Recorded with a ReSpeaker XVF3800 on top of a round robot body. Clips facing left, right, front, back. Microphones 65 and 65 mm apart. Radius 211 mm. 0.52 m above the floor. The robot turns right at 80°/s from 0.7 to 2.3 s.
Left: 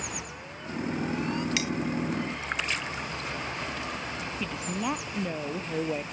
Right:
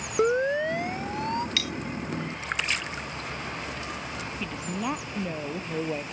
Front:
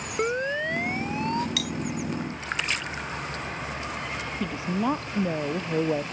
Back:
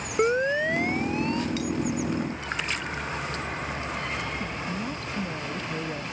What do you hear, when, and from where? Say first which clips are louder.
0.2 s a siren: right 18 dB, back 4 dB; 100° right; by 1.5 s 40° right
1.6 s cutlery clinking: left 2 dB, back 3 dB; 20° left; by 1.7 s 30° left
4.4 s a woman speaking: even, front 4 dB; straight ahead